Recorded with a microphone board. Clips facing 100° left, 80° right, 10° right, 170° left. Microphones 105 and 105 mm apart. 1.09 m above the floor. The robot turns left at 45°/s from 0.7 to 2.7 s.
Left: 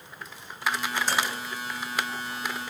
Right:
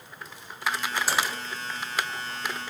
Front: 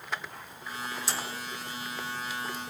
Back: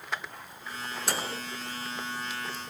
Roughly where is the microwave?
Behind.